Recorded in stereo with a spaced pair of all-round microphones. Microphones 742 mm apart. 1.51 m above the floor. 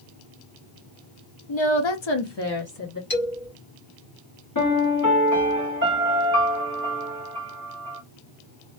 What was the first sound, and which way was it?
A woman speaking, 45° left (ahead or behind).